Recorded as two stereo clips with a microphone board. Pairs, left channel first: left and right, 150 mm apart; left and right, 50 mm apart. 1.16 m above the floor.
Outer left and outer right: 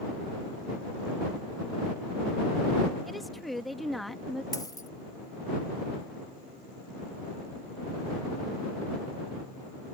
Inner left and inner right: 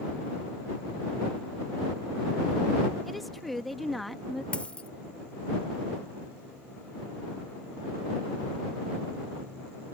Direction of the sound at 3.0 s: Centre (ahead or behind).